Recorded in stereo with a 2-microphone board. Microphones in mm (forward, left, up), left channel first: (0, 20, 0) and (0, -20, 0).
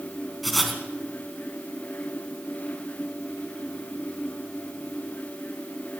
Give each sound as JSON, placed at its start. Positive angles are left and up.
{"t": 0.4, "sound": "writing", "side_deg": 0, "distance_m": 3.0}